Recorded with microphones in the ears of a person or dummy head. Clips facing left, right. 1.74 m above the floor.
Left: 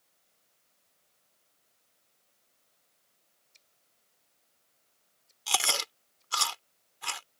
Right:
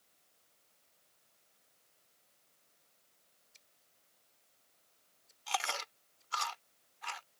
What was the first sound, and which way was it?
Scissors, 5° right (ahead or behind).